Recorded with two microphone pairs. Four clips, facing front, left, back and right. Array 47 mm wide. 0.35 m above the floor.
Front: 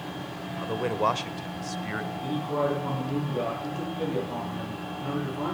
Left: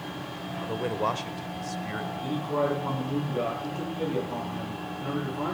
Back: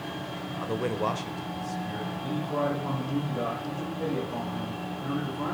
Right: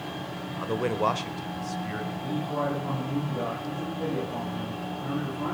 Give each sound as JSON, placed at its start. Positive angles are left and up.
{"t": 0.6, "sound": "a man speaking", "azimuth_deg": -80, "distance_m": 0.8}
{"t": 2.2, "sound": "a man speaking", "azimuth_deg": 60, "distance_m": 9.5}